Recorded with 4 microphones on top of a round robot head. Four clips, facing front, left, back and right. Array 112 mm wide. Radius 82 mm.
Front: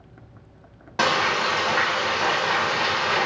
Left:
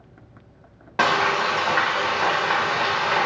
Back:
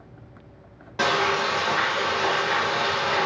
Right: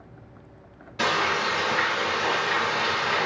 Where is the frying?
75° left, 0.6 m.